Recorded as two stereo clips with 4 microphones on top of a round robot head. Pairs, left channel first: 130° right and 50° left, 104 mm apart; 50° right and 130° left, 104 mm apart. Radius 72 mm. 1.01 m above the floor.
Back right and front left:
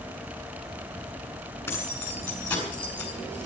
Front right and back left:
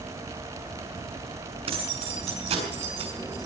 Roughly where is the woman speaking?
No woman speaking in this recording.